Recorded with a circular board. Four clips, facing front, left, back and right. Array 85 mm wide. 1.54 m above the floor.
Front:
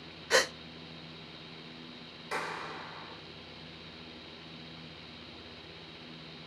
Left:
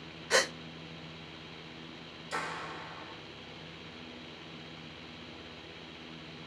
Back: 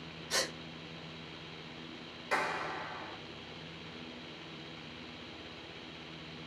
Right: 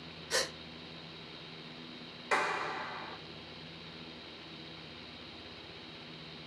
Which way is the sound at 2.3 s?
100° right.